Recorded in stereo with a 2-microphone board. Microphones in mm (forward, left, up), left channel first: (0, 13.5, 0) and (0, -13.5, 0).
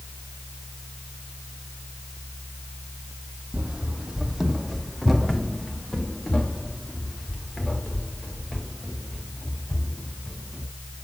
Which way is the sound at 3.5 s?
40° right (ahead or behind).